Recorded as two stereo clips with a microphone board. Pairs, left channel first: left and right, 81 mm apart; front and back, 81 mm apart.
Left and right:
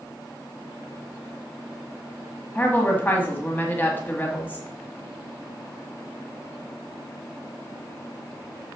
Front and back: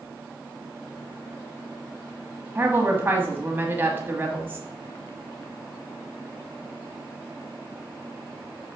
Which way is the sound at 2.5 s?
140° left.